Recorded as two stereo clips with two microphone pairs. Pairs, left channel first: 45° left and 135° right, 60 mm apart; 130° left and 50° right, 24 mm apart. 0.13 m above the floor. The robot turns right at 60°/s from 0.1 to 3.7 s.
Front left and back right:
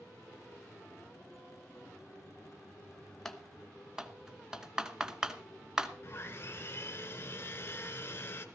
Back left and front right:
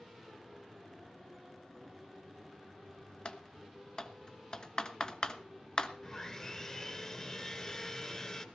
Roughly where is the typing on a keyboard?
Behind left.